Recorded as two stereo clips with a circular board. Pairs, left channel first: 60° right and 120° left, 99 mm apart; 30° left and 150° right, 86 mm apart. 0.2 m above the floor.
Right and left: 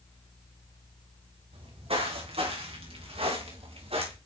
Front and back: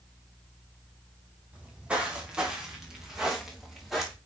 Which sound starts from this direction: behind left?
Footsteps, at 1.5 s.